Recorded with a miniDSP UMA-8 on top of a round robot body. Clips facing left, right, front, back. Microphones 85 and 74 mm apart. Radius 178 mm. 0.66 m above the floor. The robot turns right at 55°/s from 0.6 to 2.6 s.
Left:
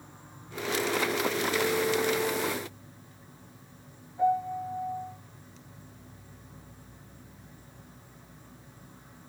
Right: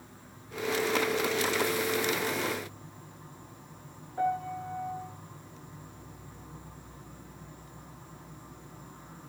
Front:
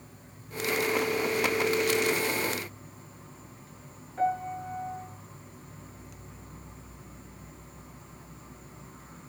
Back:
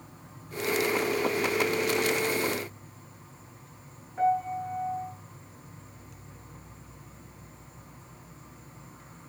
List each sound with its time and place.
0.0 s an insect: 155° left, 9.5 m; by 9.3 s 95° right, 9.5 m
4.2 s a piano: 95° right, 9 m